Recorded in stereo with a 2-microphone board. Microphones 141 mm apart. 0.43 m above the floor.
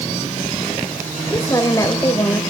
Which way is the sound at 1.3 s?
25° left (ahead or behind).